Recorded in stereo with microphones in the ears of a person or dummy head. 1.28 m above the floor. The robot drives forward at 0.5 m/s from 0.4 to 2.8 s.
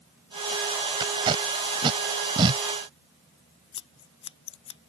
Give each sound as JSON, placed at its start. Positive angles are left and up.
{"t": 1.0, "sound": "tape being pulled", "side_deg": -25}
{"t": 3.7, "sound": "scissors", "side_deg": 30}